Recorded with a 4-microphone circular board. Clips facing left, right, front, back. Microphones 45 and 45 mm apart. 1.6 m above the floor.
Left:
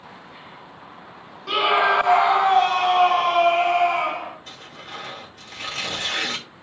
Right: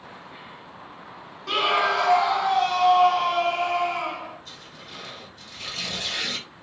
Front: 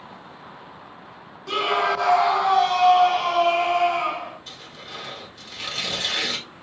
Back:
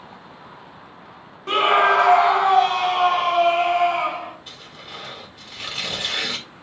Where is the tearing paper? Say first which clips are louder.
Left 4 dB, even; 105° left, 2 m.